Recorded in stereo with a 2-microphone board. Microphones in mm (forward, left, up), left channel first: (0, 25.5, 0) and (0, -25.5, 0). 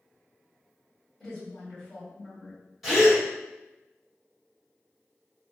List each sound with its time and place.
1.2 s a woman speaking: 5° left (ahead or behind), 1.9 m
2.8 s a gasp: 5° right (ahead or behind), 1.8 m